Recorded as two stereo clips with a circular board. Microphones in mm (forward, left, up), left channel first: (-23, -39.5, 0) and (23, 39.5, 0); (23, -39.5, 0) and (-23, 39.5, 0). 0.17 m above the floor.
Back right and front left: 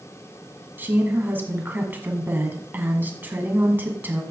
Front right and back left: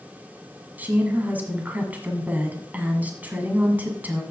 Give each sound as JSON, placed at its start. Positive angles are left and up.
{"t": 0.8, "sound": "a woman speaking", "azimuth_deg": 85, "distance_m": 1.7}